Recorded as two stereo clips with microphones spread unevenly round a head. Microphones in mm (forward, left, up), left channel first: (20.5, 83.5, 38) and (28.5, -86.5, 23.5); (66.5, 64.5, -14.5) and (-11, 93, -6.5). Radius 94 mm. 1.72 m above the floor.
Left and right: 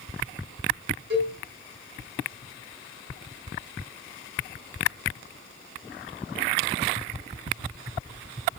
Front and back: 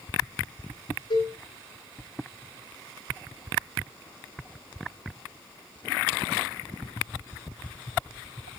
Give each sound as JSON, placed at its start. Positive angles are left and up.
{"t": 1.1, "sound": "a cowbell", "azimuth_deg": -60, "distance_m": 5.5}